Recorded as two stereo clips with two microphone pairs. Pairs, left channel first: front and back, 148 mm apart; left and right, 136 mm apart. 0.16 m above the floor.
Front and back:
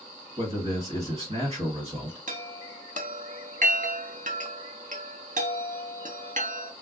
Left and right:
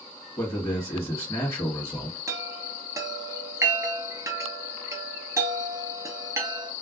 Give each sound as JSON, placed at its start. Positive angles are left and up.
{"t": 0.4, "sound": "a man speaking", "azimuth_deg": 155, "distance_m": 1.9}
{"t": 2.3, "sound": "a chime", "azimuth_deg": -155, "distance_m": 0.6}